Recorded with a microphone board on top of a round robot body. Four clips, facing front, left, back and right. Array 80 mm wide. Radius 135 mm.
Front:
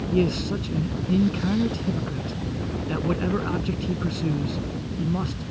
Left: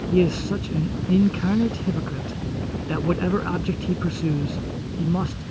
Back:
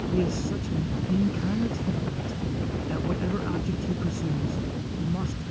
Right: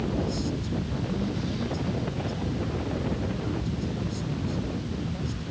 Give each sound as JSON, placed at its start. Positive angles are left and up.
{"t": 0.1, "sound": "a man speaking", "azimuth_deg": 75}